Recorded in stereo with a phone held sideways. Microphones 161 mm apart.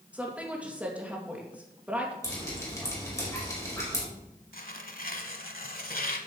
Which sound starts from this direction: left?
Tearing paper, at 4.5 s.